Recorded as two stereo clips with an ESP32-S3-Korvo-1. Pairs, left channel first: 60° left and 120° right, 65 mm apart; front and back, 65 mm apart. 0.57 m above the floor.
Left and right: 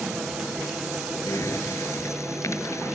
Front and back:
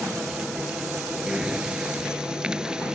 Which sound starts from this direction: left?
Breathing, at 1.3 s.